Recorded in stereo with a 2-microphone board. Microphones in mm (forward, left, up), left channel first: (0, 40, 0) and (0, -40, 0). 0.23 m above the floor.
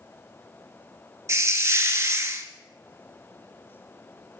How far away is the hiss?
About 0.5 m.